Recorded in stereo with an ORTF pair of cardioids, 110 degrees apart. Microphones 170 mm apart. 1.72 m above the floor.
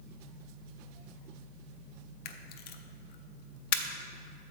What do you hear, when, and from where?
2.2 s a camera shutter: 65° left, 0.6 m